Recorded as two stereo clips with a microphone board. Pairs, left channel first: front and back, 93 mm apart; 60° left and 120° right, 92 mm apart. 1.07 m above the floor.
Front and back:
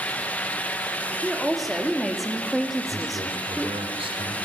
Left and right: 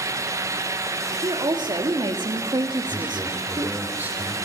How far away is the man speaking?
About 3 m.